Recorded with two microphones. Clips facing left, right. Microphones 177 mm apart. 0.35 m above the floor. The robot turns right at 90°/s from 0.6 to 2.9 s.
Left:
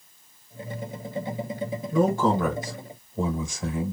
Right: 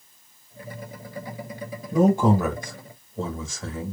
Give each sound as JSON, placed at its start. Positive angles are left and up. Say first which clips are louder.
{"t": 1.9, "sound": "a man speaking", "louder": "right 3 dB", "azimuth_deg": -55, "distance_m": 0.9}